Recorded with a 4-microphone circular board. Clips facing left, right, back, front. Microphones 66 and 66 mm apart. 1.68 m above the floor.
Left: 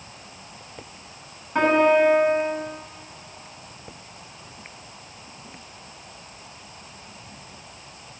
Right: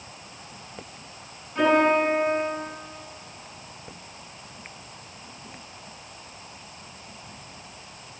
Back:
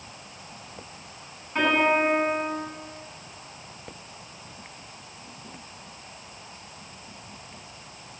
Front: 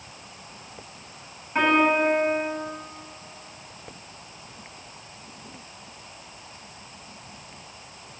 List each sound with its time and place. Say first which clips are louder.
1.6 s a piano: left 2 dB, front 2 dB; 75° left, 7.5 m